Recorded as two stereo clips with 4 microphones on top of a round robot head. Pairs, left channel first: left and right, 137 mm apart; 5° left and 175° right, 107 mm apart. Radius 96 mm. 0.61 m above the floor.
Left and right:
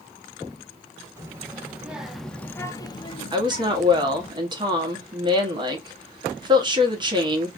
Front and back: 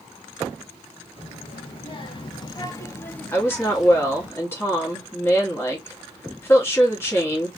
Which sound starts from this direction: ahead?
A child speaking, at 1.2 s.